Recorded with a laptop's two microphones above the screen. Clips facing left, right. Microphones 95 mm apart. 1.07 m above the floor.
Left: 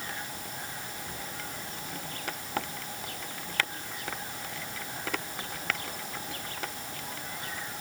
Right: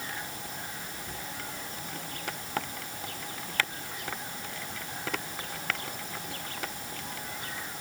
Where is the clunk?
No clunk in this recording.